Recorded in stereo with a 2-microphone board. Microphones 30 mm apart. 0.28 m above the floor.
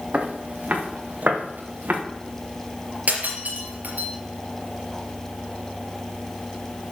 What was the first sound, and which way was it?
Footsteps, 55° right (ahead or behind).